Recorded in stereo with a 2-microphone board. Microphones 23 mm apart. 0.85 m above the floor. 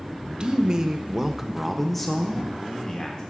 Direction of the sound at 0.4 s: 35° right (ahead or behind).